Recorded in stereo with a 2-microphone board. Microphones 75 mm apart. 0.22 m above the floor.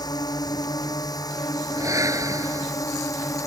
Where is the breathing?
50° right (ahead or behind).